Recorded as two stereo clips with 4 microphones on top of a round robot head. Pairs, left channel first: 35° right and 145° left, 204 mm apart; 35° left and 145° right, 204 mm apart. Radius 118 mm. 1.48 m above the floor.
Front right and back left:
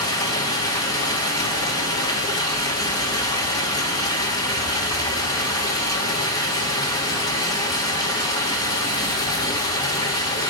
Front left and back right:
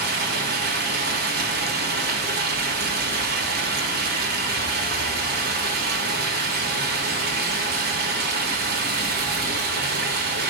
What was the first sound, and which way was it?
Running water, 110° right.